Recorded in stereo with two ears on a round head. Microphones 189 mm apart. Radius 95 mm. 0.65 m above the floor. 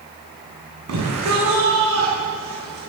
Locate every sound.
0.9 s a shout: 80° right, 7 m; by 2.8 s 75° right (ahead or behind), 10 m